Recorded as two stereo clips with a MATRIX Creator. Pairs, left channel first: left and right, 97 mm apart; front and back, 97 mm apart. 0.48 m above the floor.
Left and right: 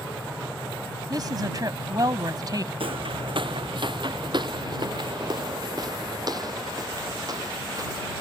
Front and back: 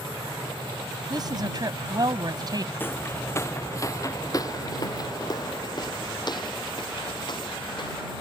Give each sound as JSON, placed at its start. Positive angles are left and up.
{"t": 1.1, "sound": "a woman speaking", "azimuth_deg": -135}
{"t": 2.8, "sound": "footsteps", "azimuth_deg": -70}